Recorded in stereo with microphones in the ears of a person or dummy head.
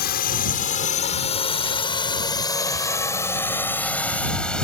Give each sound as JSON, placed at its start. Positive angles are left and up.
{"t": 0.0, "sound": "a drone", "side_deg": 50}